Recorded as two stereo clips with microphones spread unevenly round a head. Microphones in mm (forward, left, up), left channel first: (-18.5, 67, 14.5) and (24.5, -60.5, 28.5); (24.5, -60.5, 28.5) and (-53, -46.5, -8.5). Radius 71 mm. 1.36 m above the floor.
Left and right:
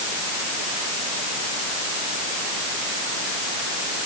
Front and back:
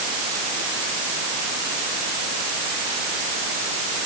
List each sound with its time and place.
Only background noise.